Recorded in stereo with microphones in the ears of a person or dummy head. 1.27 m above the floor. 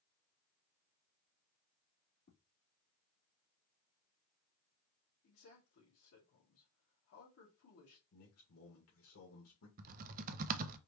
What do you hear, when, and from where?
2.2 s footsteps: 55° left (ahead or behind), 3 m
5.2 s a man speaking: 85° left, 2.5 m
8.1 s a man speaking: 70° left (ahead or behind), 1.8 m
9.8 s typing on a keyboard: 45° right (ahead or behind), 0.5 m